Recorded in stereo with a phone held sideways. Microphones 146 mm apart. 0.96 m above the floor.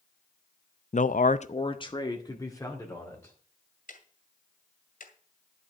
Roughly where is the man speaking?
Left.